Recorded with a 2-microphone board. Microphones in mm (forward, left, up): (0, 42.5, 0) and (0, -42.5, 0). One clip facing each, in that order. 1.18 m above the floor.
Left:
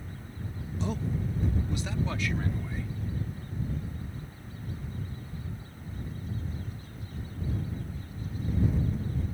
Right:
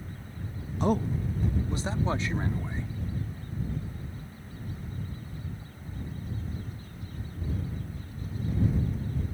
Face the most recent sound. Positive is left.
turn(degrees=-25)  # may be behind; listen again after turning